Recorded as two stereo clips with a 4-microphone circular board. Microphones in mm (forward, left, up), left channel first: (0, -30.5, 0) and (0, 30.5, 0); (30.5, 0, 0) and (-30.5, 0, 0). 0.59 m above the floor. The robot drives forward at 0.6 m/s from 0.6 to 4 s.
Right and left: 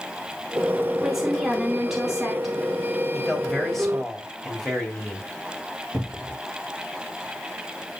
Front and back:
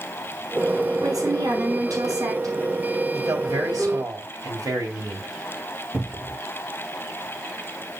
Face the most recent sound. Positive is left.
turn(degrees=140)